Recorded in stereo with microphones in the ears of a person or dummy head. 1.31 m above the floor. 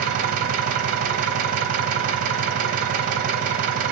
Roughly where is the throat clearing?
I don't hear throat clearing.